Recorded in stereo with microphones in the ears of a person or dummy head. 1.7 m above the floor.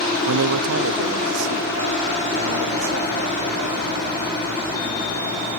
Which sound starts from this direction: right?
A man speaking, at 0.3 s.